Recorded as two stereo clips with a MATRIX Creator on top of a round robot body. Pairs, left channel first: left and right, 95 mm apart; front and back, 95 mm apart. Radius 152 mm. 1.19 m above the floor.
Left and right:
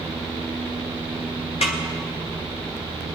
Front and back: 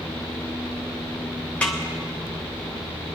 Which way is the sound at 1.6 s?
75° left.